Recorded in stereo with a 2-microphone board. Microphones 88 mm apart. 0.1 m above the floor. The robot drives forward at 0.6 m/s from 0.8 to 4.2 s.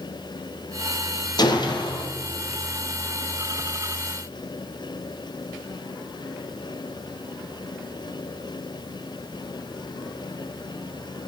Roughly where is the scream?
I don't hear a scream.